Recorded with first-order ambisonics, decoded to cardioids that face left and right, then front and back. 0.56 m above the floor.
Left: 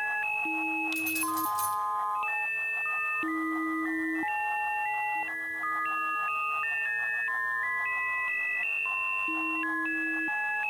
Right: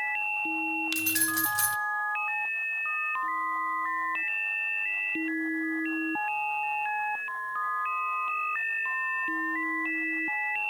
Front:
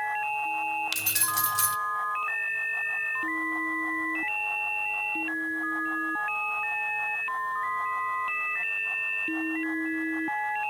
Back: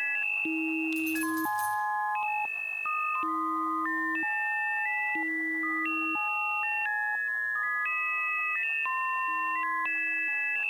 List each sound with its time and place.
0.9 s keys jangling: 30° right, 1.0 m